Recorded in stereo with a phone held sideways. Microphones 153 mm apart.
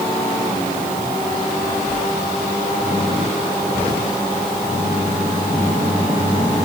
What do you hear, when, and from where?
Only background noise.